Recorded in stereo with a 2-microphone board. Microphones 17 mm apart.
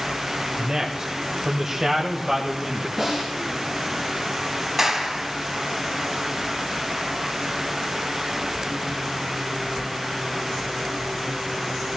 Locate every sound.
0.6 s a man speaking: 40° right (ahead or behind), 1.3 m; by 2.9 s 25° right (ahead or behind), 2.5 m
3.0 s a snare drum: 15° right (ahead or behind), 7.5 m
4.8 s a clap: 20° right (ahead or behind), 2 m